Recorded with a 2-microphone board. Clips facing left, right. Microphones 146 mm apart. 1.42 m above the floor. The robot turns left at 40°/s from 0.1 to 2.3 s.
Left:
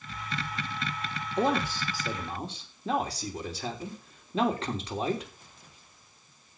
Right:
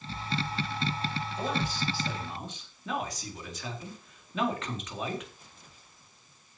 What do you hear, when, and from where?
1.4 s a man speaking: 70° left, 4 m; by 5.3 s 35° left, 4 m